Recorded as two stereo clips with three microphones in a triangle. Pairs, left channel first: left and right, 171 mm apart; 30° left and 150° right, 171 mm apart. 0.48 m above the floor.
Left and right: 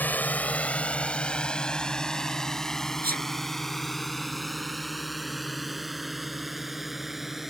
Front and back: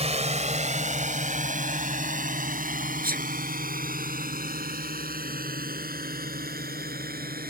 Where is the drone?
165° left; by 7.5 s straight behind.